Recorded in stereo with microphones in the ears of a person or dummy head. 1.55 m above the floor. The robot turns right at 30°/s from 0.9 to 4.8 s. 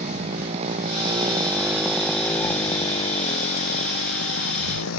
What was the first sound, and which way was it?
A motorcycle, 35° right.